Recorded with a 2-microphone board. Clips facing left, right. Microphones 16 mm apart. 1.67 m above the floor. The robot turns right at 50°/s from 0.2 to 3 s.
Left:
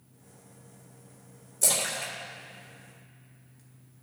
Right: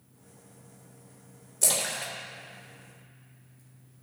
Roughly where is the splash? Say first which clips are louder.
Even; right.